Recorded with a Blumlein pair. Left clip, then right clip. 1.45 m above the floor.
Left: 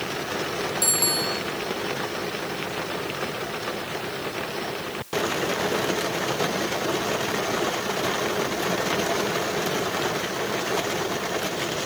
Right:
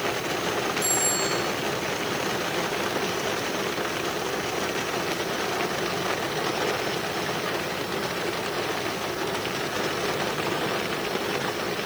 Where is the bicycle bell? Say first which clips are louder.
Left 1 dB; 60° left, 7.5 m.